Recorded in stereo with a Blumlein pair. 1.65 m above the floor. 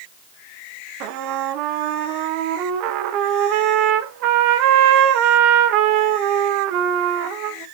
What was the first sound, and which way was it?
A trumpet, 40° right.